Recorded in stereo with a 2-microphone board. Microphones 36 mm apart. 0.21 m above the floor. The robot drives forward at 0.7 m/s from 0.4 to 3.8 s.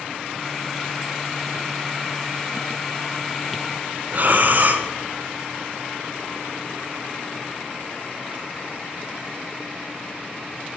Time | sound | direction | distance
4.1 | breathing | 50° right (ahead or behind) | 1.6 m